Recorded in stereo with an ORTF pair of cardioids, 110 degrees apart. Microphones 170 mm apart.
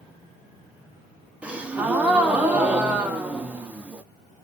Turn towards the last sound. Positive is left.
turn(degrees=-5)